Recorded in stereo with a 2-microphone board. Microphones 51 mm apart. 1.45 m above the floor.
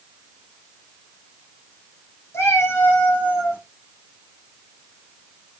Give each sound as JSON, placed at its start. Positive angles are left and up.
{"t": 2.3, "sound": "a cat meowing", "side_deg": 60, "distance_m": 3.0}